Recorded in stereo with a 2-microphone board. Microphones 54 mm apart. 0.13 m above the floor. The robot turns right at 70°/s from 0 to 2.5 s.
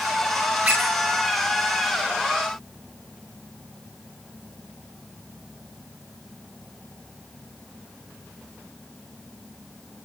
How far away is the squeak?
About 9.5 m.